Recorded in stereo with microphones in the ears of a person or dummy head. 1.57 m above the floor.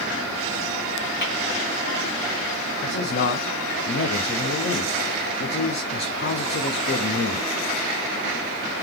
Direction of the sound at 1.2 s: 45° left (ahead or behind).